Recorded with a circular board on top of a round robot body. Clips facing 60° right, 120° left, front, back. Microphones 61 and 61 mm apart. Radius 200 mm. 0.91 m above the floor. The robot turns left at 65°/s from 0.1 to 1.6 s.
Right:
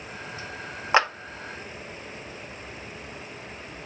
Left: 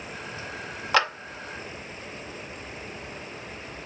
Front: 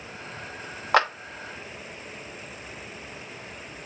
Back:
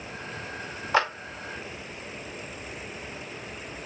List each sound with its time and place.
0.9 s a clap: straight ahead, 1.1 m; by 1.1 s 5° right, 1.1 m